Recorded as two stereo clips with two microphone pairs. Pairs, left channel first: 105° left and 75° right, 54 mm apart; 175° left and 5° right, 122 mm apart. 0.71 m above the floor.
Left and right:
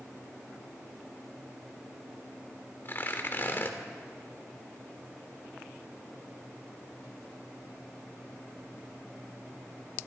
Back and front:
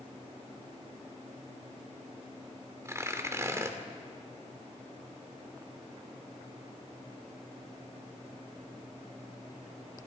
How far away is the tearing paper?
About 2.5 m.